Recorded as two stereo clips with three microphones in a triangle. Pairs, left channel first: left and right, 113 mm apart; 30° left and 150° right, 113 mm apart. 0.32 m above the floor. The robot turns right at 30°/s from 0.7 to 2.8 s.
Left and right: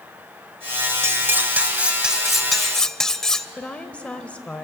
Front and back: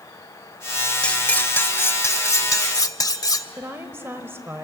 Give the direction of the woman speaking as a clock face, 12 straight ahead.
7 o'clock.